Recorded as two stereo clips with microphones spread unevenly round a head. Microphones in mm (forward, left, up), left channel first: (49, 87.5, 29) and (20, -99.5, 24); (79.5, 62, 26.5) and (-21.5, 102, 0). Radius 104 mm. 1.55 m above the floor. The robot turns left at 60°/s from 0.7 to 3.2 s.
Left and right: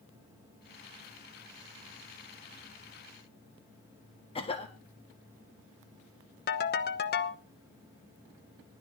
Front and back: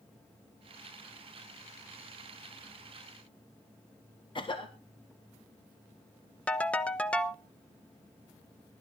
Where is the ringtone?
50° left, 1.0 m.